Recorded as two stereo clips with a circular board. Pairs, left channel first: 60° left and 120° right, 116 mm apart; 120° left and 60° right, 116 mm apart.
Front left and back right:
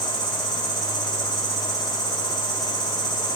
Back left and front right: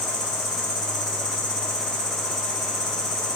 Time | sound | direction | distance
0.0 | an insect | 85° left | 0.9 m